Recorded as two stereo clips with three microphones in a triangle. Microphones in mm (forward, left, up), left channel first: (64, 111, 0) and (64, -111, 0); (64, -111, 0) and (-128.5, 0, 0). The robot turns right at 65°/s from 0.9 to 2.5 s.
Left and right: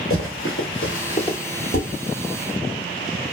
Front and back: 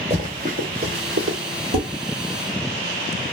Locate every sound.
0.1 s running footsteps: 90° left, 1.8 m; by 1.4 s 165° left, 1.2 m
1.7 s dishes clattering: 120° left, 1.6 m; by 1.9 s 130° left, 1.6 m